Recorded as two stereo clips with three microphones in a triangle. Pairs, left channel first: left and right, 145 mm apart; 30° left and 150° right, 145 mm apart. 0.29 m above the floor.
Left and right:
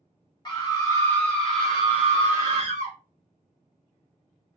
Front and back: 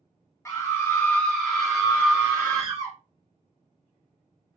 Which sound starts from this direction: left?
A scream, at 0.5 s.